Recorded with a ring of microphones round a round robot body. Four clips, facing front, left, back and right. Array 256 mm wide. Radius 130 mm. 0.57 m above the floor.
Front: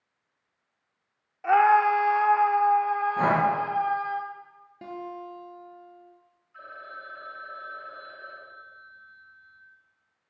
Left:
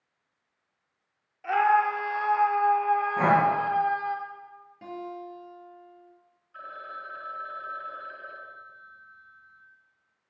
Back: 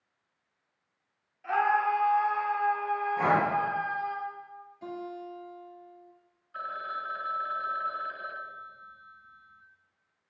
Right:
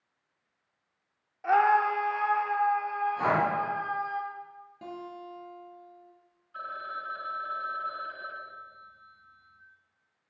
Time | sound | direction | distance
1.4 | a scream | 25° right | 1.5 m
3.2 | breathing | 40° left | 4 m
4.8 | a guitar | 10° right | 3.5 m
6.5 | a phone ringing | 170° right | 2.5 m